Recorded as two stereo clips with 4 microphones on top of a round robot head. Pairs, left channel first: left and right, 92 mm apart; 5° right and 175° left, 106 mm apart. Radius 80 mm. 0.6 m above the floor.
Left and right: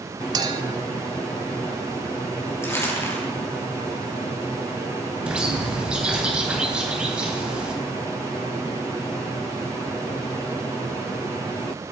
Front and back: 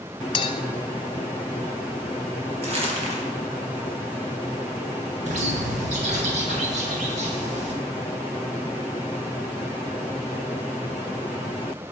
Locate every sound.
0.3 s a clink: 45° right, 1.0 m
2.6 s crumpling: 150° left, 5 m
5.2 s a bird: 170° right, 3 m